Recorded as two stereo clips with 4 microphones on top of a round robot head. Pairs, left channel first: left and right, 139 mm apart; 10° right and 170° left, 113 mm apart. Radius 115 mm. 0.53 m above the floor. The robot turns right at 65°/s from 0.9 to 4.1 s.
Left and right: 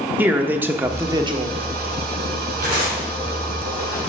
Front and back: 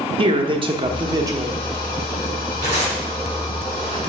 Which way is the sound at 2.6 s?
75° right.